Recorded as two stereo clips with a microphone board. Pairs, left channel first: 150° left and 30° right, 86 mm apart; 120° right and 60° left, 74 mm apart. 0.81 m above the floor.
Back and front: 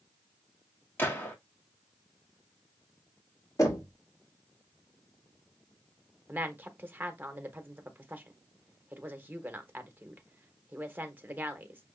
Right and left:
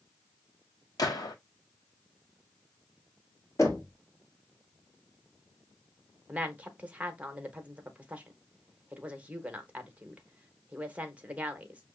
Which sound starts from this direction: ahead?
A woman speaking, at 6.3 s.